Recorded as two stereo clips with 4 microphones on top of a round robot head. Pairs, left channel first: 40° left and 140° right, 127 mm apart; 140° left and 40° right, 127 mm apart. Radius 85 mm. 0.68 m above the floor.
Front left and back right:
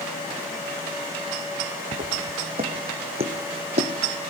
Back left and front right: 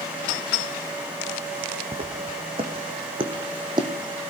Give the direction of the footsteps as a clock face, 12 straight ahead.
3 o'clock.